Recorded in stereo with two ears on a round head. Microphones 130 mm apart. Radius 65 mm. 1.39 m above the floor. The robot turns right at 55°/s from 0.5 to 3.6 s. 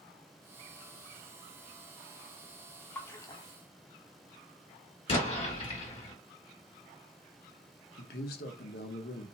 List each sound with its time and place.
3.0 s a splash: 10° left (ahead or behind), 0.5 m; by 3.5 s 35° left (ahead or behind), 0.5 m
5.1 s an explosion: 40° left (ahead or behind), 1.5 m
8.0 s a man speaking: 75° left (ahead or behind), 0.9 m